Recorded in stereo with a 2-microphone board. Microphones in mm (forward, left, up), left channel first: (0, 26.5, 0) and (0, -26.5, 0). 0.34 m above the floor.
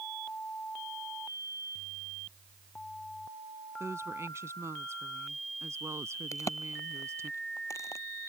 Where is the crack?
80° left.